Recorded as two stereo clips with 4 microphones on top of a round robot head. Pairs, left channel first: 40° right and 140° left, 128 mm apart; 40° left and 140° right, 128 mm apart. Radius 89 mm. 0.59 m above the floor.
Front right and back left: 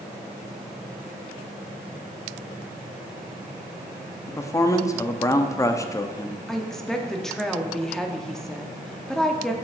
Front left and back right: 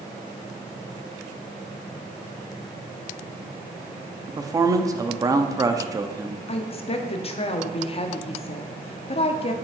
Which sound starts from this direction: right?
A man speaking, at 4.3 s.